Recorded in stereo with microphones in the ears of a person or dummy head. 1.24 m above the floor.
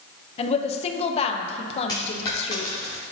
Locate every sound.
0.4 s a woman speaking: 30° left (ahead or behind), 0.6 m
1.9 s a dropped coin: 15° left (ahead or behind), 0.9 m